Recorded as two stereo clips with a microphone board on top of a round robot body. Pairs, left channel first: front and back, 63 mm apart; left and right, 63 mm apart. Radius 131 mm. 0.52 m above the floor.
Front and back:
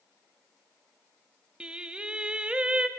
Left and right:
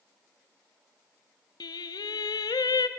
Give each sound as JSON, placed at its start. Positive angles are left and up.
{"t": 1.6, "sound": "singing", "azimuth_deg": 105, "distance_m": 0.6}